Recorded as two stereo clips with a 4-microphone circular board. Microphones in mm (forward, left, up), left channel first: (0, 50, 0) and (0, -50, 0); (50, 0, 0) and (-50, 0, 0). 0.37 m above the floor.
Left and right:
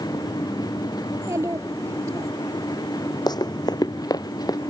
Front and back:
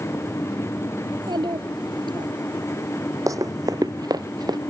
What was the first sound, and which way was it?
A child speaking, 145° right.